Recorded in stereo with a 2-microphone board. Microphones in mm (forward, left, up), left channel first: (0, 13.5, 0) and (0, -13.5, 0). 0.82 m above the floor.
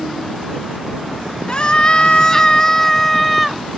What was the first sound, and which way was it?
A scream, 40° left (ahead or behind).